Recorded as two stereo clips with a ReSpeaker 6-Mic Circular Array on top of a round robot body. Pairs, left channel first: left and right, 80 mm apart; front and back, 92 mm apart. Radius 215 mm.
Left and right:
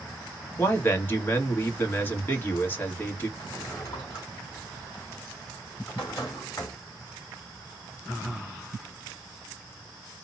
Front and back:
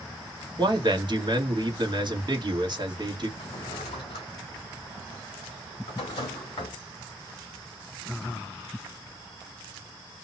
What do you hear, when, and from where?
0.6 s a man speaking: 150° left, 1.4 m
3.4 s a drawer: 35° left, 0.6 m